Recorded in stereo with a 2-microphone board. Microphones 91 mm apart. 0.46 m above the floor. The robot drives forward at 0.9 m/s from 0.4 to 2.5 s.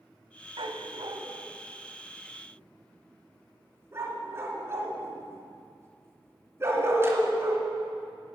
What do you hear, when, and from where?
0.6 s a dog barking: 75° right (ahead or behind), 1.1 m; by 7.7 s 30° right (ahead or behind), 2 m